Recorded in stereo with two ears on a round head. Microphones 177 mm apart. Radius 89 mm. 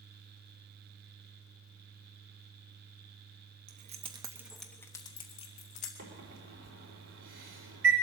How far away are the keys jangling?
About 1.2 m.